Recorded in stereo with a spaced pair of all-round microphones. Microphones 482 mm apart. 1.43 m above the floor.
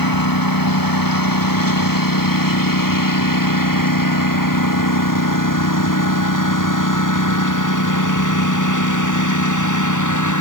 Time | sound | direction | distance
0.0 | a lawn mower | 45° left (ahead or behind) | ?